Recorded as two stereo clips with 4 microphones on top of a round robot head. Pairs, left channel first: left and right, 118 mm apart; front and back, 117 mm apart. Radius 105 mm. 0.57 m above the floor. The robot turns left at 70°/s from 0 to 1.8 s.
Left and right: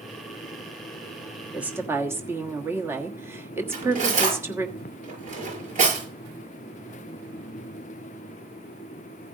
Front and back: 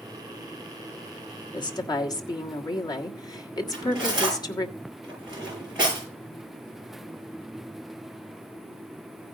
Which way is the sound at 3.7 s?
95° right.